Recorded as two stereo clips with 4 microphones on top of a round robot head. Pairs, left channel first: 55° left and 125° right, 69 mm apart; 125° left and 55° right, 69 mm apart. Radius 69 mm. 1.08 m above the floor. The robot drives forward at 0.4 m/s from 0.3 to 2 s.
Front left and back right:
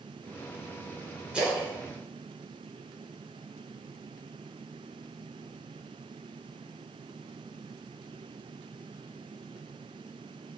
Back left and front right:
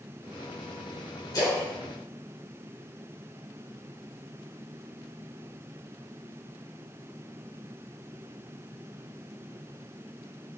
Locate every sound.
1.3 s a splash: 160° left, 4 m